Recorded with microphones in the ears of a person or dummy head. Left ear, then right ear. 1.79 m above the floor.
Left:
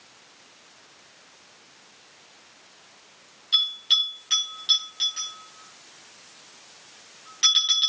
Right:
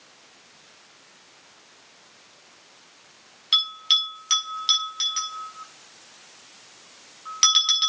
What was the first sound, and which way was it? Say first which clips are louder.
A bell: right 1 dB; 40° right (ahead or behind).